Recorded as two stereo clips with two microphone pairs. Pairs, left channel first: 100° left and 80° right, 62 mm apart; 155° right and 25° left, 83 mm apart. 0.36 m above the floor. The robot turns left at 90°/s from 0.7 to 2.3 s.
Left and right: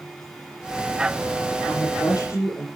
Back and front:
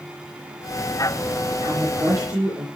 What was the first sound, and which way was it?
A woman speaking, 125° left.